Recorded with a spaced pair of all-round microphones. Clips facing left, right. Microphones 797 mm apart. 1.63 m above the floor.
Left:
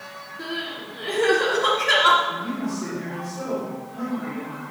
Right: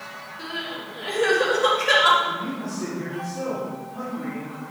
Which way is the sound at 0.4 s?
20° right (ahead or behind).